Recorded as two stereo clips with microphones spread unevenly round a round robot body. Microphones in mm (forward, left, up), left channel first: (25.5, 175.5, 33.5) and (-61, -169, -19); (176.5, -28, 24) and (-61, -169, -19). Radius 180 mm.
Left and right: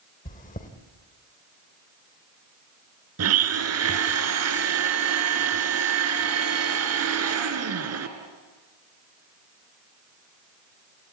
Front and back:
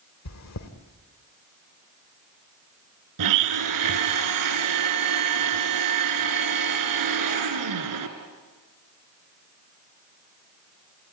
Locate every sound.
0.2 s chewing: 5° left, 1.8 m
3.2 s a blender: 155° right, 1.8 m